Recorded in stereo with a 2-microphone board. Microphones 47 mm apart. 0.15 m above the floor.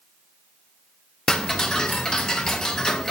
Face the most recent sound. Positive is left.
turn(degrees=15)  # may be behind; listen again after turning